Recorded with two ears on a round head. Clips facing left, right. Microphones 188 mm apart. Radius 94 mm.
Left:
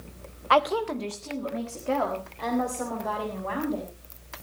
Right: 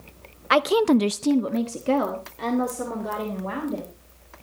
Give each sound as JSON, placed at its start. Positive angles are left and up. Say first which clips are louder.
{"t": 0.5, "sound": "a woman speaking", "louder": "right 6 dB", "side_deg": -25, "distance_m": 0.7}